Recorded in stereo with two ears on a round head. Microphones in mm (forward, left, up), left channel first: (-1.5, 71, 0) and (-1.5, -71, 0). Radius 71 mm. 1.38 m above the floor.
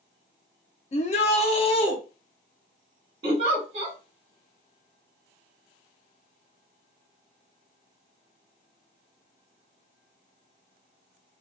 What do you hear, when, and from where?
0.9 s a shout: 45° left (ahead or behind), 0.5 m; by 2.0 s 35° left (ahead or behind), 0.9 m
3.2 s a giggle: 40° right (ahead or behind), 1.1 m